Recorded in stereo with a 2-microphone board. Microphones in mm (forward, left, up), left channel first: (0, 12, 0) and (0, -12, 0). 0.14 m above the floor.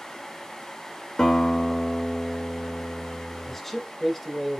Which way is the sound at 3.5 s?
5° left (ahead or behind).